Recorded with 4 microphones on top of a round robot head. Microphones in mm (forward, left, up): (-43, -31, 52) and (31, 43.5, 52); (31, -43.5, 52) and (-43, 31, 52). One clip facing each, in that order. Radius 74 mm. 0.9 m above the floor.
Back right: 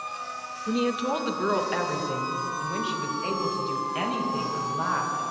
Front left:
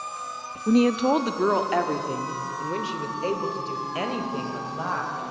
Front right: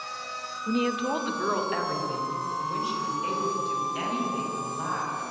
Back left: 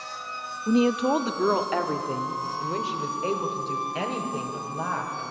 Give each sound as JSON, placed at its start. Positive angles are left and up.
{"t": 0.7, "sound": "a woman speaking", "azimuth_deg": 75, "distance_m": 1.6}